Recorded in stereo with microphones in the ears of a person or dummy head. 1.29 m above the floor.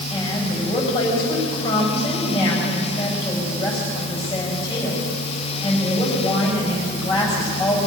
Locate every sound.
0.1 s a woman speaking: 20° left (ahead or behind), 8 m